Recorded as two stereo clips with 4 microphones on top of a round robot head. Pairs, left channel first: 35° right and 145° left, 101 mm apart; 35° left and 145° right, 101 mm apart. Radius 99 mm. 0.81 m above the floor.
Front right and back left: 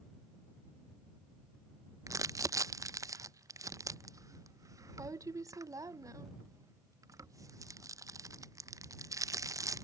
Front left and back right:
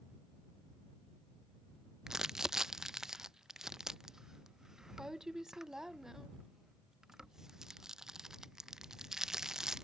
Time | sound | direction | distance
2.1 | crumpling | 135° left | ?